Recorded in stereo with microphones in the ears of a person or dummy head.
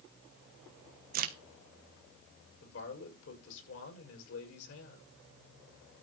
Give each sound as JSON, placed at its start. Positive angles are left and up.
{"t": 1.1, "sound": "a crack", "side_deg": -45, "distance_m": 1.1}
{"t": 2.6, "sound": "a man speaking", "side_deg": 70, "distance_m": 6.0}